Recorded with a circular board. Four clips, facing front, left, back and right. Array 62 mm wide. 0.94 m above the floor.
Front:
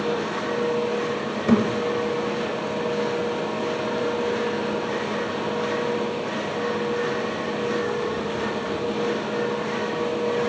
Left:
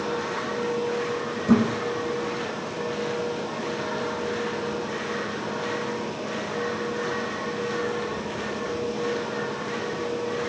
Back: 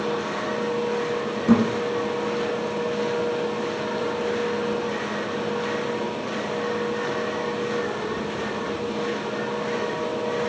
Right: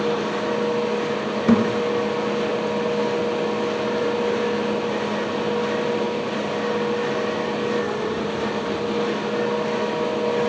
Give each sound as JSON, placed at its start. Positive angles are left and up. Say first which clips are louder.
{"t": 1.5, "sound": "a thud", "louder": "right 2 dB, back 1 dB", "azimuth_deg": -80, "distance_m": 2.5}